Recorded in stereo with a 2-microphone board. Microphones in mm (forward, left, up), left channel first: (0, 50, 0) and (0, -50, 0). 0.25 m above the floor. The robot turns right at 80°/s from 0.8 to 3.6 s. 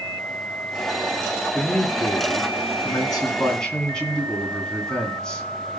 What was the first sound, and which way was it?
A man speaking, 5° left.